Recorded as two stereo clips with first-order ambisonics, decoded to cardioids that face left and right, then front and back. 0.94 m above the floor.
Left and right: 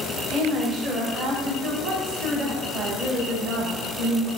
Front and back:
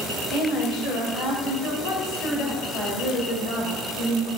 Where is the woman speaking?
30° right, 3.5 m.